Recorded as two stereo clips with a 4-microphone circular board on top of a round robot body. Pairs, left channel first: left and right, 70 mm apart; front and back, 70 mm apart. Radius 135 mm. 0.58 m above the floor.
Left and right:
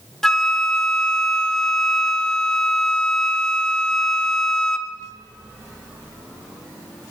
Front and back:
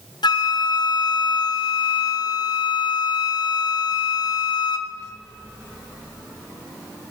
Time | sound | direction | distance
0.2 | a flute | 5° left | 0.6 m